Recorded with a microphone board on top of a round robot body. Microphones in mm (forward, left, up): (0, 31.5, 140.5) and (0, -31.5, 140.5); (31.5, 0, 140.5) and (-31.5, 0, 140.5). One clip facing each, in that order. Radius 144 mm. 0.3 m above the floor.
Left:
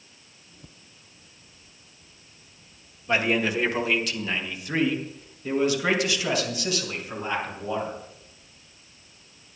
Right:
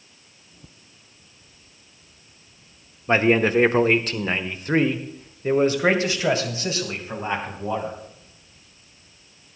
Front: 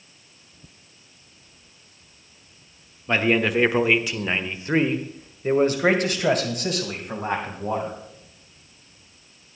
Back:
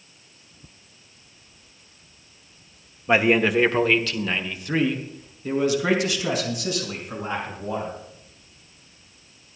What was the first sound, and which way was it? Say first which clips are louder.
A man speaking: right 6 dB, back 2 dB; 115° right.